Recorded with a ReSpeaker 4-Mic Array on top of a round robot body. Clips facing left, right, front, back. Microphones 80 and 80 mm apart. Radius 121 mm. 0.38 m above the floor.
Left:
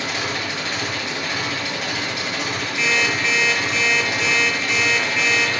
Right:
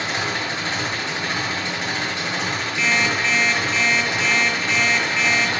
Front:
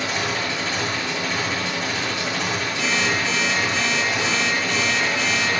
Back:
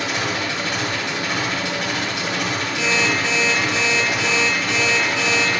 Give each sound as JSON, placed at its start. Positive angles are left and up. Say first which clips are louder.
{"t": 0.0, "sound": "an engine running", "louder": "right 1 dB, back 1 dB", "azimuth_deg": -150, "distance_m": 7.0}
{"t": 2.8, "sound": "an alarm clock", "louder": "even, back 3 dB", "azimuth_deg": 180, "distance_m": 6.5}